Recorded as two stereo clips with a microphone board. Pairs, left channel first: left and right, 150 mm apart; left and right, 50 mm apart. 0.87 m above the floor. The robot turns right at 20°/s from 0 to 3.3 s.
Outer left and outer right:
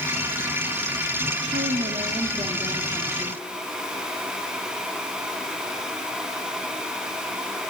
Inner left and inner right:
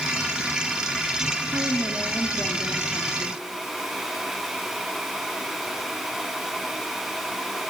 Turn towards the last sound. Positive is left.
turn(degrees=-20)